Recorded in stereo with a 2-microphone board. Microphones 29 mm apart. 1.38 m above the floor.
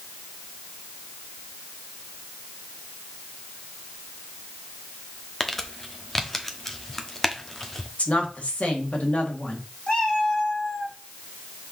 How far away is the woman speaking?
About 2.5 m.